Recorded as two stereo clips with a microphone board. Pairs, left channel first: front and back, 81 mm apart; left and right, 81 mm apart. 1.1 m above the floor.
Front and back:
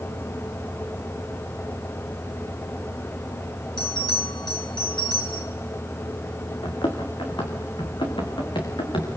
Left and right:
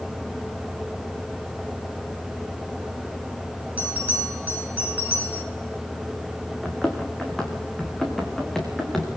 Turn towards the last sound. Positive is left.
turn(degrees=5)